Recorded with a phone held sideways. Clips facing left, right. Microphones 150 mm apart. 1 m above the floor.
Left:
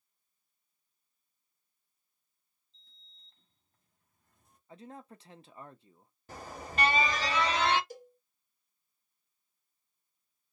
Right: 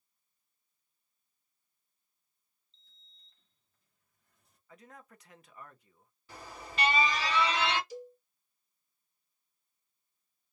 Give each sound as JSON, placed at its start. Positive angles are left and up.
{"t": 2.7, "sound": "a sliding door", "side_deg": 50, "distance_m": 1.0}
{"t": 4.7, "sound": "a man speaking", "side_deg": 30, "distance_m": 0.5}
{"t": 6.3, "sound": "an alarm", "side_deg": 45, "distance_m": 0.9}
{"t": 7.9, "sound": "a cowbell", "side_deg": 55, "distance_m": 0.7}